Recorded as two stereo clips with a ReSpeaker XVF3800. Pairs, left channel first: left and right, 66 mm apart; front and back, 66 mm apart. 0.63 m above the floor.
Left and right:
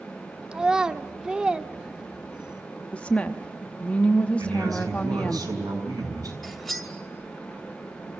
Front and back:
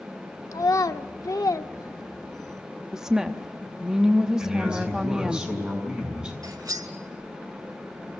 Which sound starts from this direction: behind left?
A woman speaking, at 2.9 s.